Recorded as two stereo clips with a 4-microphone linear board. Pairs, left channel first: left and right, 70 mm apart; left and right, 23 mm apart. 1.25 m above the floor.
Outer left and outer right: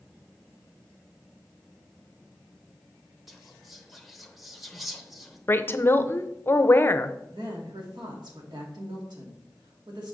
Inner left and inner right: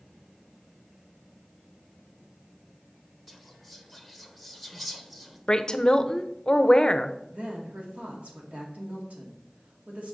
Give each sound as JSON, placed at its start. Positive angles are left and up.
{"t": 3.3, "sound": "whispering", "side_deg": 0, "distance_m": 1.0}
{"t": 5.5, "sound": "a woman speaking", "side_deg": 30, "distance_m": 0.6}
{"t": 7.3, "sound": "a woman speaking", "side_deg": -85, "distance_m": 2.0}